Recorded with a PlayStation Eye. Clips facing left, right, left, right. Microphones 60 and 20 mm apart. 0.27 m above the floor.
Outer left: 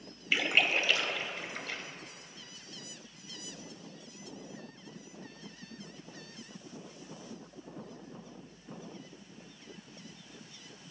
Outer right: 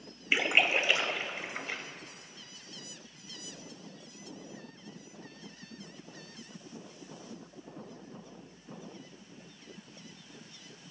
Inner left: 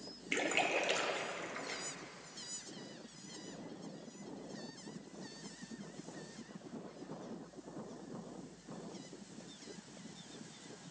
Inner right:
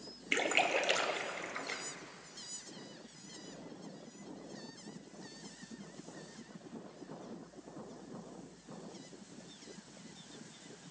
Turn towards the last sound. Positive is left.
turn(degrees=-20)  # may be behind; listen again after turning